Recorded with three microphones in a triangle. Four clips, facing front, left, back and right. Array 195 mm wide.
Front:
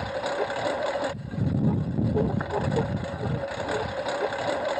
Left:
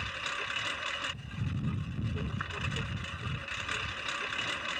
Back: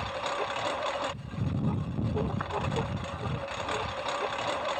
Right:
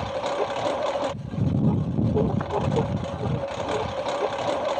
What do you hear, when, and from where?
0.0 s a lawn mower: 55° right